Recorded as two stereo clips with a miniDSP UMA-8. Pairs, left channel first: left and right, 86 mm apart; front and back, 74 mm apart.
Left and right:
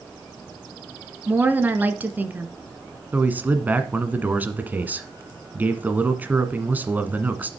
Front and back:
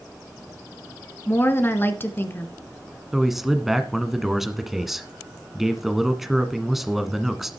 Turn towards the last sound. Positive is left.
turn(degrees=-100)